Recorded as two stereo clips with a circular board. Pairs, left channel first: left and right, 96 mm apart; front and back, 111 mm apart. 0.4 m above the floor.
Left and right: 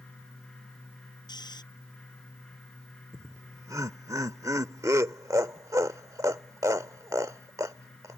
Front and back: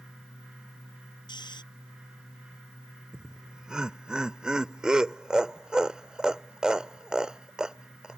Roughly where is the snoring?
Ahead left.